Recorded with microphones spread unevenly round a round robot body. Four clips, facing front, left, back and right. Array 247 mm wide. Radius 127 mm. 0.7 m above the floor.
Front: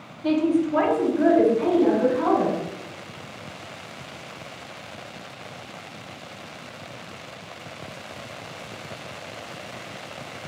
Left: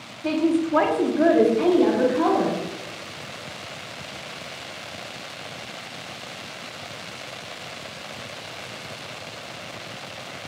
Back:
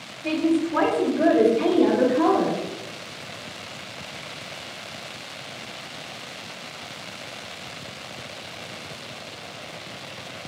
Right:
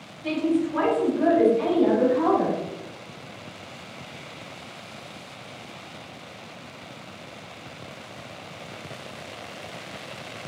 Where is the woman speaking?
55° left, 1.5 m; by 2.6 s 125° left, 2.5 m.